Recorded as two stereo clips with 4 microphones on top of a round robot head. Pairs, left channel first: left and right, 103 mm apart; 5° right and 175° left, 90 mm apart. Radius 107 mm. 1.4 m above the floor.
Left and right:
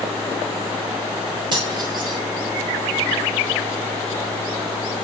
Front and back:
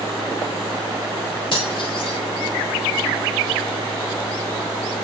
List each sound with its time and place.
1.5 s cutlery clinking: 40° right, 6 m